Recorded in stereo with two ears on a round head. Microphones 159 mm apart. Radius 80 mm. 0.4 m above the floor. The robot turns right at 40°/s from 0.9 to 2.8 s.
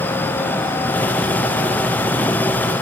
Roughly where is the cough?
I don't hear a cough.